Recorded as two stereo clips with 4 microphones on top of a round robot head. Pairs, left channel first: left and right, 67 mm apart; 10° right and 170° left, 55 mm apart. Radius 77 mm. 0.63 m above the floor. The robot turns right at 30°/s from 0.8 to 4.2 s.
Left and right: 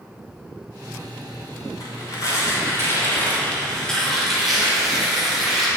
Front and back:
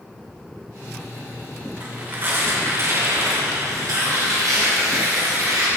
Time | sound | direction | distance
1.8 | tearing paper | 110° left | 3 m